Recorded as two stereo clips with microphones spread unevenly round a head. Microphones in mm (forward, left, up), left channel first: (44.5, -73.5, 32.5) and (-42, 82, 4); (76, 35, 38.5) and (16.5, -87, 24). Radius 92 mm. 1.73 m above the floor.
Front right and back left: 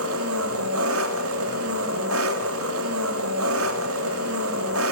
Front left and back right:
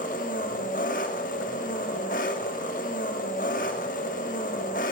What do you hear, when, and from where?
0.0 s an engine running: 110° left, 2.5 m